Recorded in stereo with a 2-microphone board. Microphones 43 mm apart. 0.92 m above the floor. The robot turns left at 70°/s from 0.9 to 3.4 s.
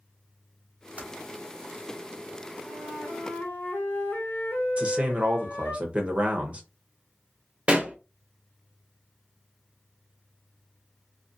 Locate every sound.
1.0 s typing on a keyboard: 30° right (ahead or behind), 0.8 m; by 1.1 s 40° right (ahead or behind), 0.8 m
2.6 s a flute: 130° left, 0.8 m; by 5.8 s 75° left, 0.8 m
4.8 s a man speaking: 25° right (ahead or behind), 0.7 m
7.7 s a pop: 25° right (ahead or behind), 0.6 m